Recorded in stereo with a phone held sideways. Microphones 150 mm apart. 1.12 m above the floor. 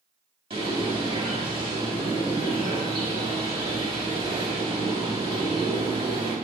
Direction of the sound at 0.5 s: 35° right (ahead or behind).